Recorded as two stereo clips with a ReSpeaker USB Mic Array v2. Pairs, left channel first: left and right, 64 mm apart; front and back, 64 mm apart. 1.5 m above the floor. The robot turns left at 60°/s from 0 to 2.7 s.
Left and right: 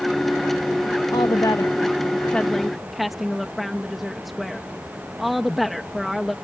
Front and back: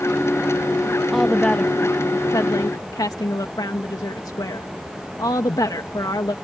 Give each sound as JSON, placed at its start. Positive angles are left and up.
{"t": 1.1, "sound": "a woman speaking", "azimuth_deg": 95}